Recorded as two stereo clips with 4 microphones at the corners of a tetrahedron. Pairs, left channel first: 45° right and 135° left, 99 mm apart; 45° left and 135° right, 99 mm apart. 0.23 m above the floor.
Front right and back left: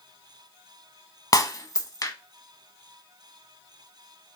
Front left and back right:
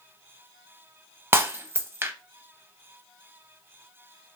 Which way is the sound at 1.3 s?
75° right.